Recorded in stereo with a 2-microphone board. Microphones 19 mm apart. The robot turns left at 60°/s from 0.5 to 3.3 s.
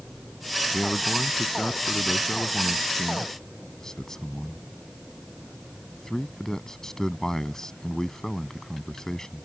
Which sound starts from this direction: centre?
A man speaking, at 0.7 s.